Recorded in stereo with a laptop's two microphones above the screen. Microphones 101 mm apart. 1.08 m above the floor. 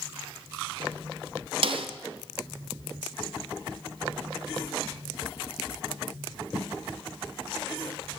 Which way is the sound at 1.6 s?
60° right (ahead or behind).